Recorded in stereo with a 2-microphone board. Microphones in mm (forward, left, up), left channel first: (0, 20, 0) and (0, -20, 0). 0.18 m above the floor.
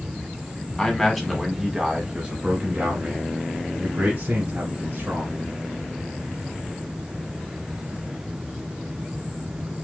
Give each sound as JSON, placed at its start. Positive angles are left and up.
{"t": 0.8, "sound": "a man speaking", "side_deg": 10, "distance_m": 1.3}